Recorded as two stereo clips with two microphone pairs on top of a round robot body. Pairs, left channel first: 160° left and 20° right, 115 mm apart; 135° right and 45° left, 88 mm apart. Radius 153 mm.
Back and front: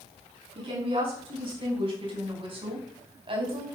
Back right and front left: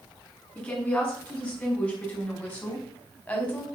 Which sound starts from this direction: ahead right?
A woman speaking, at 0.6 s.